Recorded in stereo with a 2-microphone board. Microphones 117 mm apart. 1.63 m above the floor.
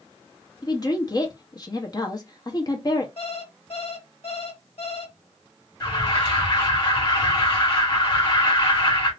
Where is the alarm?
45° left (ahead or behind), 2.5 m.